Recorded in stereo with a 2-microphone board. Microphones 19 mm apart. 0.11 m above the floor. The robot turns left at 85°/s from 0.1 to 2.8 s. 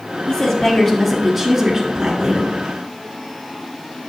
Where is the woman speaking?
25° left (ahead or behind), 1.3 m; by 2.6 s 20° right (ahead or behind), 1.3 m.